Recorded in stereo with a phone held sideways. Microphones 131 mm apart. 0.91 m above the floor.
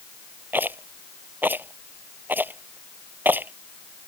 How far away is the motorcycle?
No motorcycle in this recording.